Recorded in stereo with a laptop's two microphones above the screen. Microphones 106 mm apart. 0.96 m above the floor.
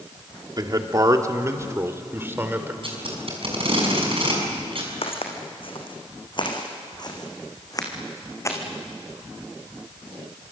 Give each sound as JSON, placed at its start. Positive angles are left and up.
{"t": 0.6, "sound": "a man speaking", "side_deg": -40, "distance_m": 2.0}
{"t": 2.8, "sound": "tape being pulled", "side_deg": -60, "distance_m": 6.0}
{"t": 5.0, "sound": "footsteps", "side_deg": 65, "distance_m": 4.0}